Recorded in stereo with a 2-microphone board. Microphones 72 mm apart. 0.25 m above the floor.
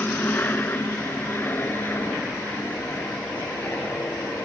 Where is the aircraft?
25° left (ahead or behind); by 4.5 s 30° left (ahead or behind).